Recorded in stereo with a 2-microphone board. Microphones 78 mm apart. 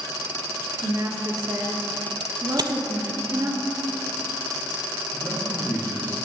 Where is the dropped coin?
60° right (ahead or behind), 0.6 m.